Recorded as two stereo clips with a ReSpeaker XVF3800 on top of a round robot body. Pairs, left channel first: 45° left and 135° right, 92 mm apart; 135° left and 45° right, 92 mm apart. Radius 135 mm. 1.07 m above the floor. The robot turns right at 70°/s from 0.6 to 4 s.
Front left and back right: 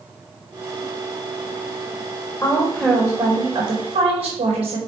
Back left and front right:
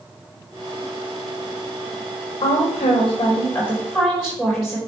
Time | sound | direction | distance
2.4 | a woman speaking | 115° left | 4 m